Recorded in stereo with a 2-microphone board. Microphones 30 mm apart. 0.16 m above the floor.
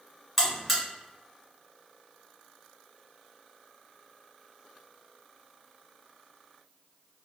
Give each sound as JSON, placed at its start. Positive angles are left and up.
{"t": 0.4, "sound": "a buzzer", "side_deg": 5, "distance_m": 1.3}